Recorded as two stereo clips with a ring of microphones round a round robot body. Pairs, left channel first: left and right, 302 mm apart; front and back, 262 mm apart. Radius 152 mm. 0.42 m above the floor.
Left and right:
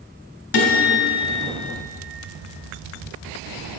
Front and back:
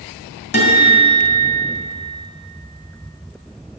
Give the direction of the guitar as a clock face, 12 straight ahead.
10 o'clock.